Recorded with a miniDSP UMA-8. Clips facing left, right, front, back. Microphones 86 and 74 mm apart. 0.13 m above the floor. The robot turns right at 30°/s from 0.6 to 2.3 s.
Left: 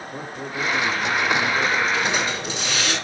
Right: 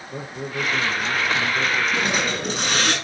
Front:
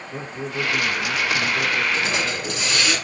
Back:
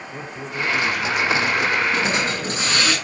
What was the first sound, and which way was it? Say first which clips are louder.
A man speaking: right 2 dB, front 2 dB; 75° right.